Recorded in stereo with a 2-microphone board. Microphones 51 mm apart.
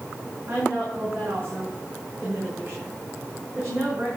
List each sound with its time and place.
0.5 s a woman speaking: 50° right (ahead or behind), 6.5 m